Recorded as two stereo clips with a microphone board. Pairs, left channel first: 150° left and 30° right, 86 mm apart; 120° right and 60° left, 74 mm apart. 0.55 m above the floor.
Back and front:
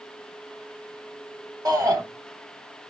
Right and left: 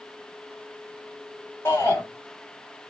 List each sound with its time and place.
1.6 s a shout: 75° right, 2.5 m